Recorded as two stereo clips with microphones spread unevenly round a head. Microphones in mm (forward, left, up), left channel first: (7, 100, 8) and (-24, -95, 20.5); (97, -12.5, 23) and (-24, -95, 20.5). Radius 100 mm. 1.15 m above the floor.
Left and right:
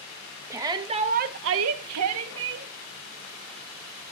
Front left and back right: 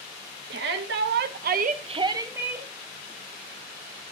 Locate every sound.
0.5 s a shout: 175° right, 1.3 m; by 2.7 s 60° right, 1.3 m